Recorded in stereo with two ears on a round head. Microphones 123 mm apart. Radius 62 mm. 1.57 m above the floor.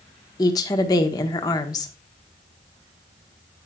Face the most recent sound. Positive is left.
turn(degrees=30)  # may be behind; listen again after turning